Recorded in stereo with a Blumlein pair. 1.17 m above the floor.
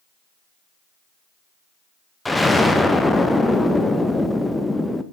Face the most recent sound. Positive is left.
turn(degrees=5)